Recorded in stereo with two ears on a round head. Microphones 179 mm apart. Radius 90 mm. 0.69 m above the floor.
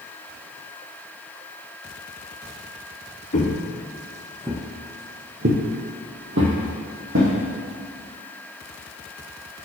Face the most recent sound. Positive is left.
turn(degrees=-75)  # may be behind; listen again after turning